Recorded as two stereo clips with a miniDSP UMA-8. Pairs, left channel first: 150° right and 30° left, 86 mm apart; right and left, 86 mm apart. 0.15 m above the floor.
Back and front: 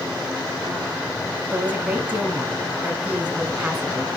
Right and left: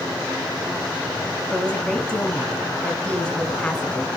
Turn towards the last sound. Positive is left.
turn(degrees=-25)